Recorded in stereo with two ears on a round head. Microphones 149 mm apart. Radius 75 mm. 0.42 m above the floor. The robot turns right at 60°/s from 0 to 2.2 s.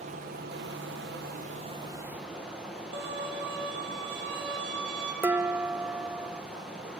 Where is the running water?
135° right, 1.8 m; by 7.0 s 5° right, 1.8 m.